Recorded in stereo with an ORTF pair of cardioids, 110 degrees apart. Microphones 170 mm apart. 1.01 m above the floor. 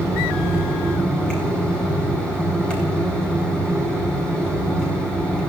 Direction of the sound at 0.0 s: 5° left.